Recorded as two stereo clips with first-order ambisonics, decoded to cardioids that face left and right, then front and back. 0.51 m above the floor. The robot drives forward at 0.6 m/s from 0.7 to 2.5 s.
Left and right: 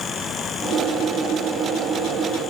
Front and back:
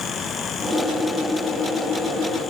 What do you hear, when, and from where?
Only background noise.